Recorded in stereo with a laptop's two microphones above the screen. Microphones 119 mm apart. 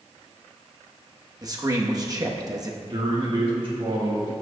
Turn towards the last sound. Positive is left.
turn(degrees=-45)  # may be behind; listen again after turning